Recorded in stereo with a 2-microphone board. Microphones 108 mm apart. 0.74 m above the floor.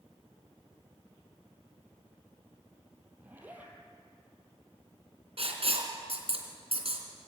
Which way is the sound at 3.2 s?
15° right (ahead or behind).